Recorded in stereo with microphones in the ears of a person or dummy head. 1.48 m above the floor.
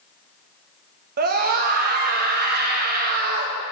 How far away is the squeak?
I don't hear a squeak.